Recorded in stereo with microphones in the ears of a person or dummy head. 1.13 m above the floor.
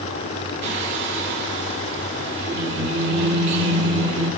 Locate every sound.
0.6 s singing: 65° right (ahead or behind), 1.9 m